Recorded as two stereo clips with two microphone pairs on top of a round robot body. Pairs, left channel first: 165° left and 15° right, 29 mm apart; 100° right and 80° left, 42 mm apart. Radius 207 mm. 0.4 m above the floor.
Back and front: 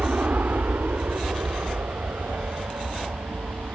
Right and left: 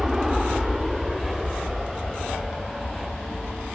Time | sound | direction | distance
0.0 | an aircraft | straight ahead | ?